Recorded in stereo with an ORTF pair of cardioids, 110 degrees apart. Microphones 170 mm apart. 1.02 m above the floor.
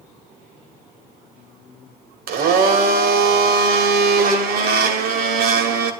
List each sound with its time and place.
2.3 s a blender: 65° right, 2.0 m